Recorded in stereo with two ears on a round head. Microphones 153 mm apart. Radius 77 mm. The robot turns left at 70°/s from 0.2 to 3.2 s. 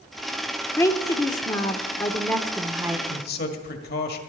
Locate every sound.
0.8 s a woman speaking: 15° left (ahead or behind), 0.8 m; by 3.0 s 10° right (ahead or behind), 0.8 m
3.1 s a man speaking: 55° left (ahead or behind), 1.6 m; by 4.2 s 60° left (ahead or behind), 1.6 m